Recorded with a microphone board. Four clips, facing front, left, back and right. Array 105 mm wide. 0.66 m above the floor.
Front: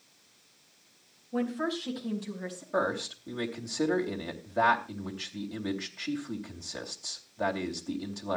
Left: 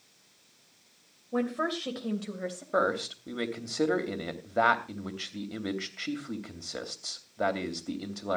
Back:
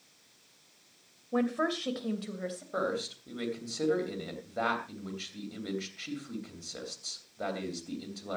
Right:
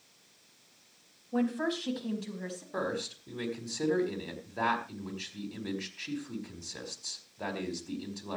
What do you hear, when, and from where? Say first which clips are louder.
1.3 s a woman speaking: even, back 1 dB; 150° left, 3 m; by 2.6 s 120° left, 3.5 m
2.7 s a man speaking: left 7 dB, front 4 dB; 80° left, 3 m